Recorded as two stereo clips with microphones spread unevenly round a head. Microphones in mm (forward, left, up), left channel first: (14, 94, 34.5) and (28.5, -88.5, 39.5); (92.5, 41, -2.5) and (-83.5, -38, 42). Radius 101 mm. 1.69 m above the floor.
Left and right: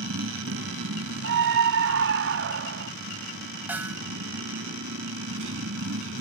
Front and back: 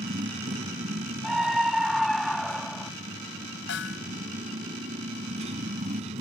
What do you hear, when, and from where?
0.0 s a motorcycle: 100° right
1.2 s a scream: 65° right
3.7 s a snare drum: 5° right